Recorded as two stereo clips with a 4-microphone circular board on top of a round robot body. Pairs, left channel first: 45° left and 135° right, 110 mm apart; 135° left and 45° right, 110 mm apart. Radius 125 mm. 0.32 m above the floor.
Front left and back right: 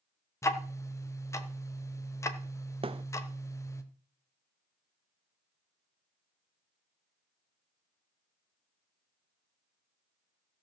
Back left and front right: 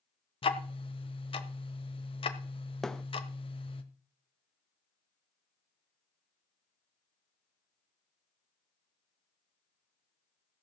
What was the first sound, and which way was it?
Ticking, 105° left.